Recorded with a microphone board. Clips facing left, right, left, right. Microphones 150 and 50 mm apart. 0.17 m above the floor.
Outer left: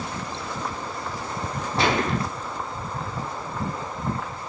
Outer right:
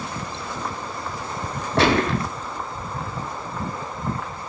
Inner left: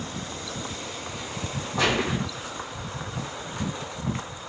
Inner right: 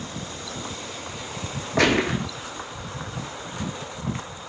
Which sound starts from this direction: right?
A gunshot, at 1.8 s.